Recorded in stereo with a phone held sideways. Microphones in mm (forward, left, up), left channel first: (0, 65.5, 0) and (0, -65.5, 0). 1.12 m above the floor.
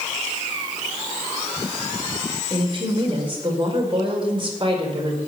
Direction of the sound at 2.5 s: 40° right (ahead or behind).